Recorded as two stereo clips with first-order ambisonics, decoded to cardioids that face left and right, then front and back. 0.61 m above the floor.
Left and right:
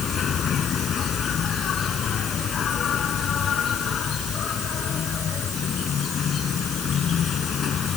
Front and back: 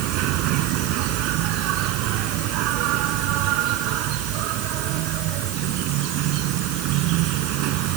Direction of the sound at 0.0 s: 150° left.